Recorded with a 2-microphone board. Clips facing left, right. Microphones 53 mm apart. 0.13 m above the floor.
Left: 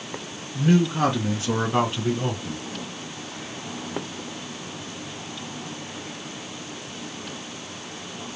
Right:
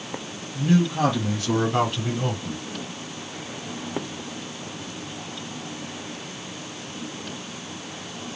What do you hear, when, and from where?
0.6 s a man speaking: 45° left (ahead or behind), 1.7 m; by 2.6 s 15° right (ahead or behind), 1.4 m